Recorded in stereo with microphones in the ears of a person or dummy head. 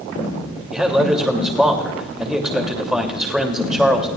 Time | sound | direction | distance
0.7 | a man speaking | centre (ahead or behind) | 2.5 m